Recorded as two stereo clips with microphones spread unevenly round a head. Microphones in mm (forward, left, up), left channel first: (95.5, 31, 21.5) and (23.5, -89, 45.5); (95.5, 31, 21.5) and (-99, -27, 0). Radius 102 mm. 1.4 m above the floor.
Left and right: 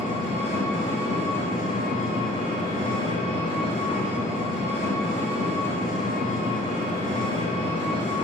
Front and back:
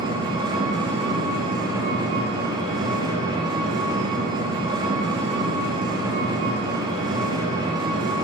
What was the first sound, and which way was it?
An engine running, 125° left.